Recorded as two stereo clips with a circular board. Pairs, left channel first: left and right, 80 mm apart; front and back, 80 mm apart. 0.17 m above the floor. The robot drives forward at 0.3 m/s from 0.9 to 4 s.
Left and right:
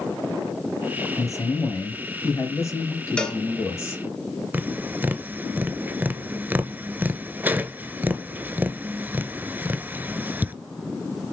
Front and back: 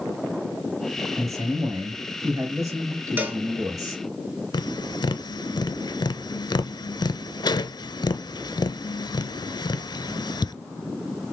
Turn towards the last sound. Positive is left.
turn(degrees=-25)